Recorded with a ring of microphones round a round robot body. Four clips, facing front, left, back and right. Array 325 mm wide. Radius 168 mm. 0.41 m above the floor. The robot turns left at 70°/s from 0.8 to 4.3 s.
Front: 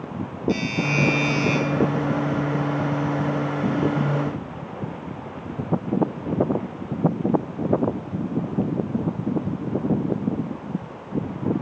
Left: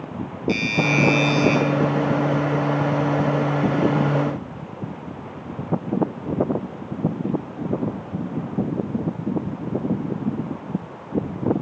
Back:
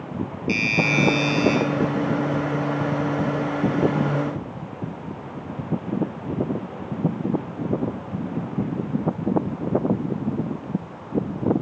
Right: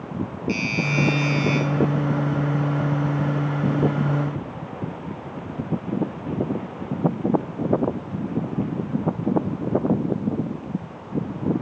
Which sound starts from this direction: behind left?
A doorbell, at 0.5 s.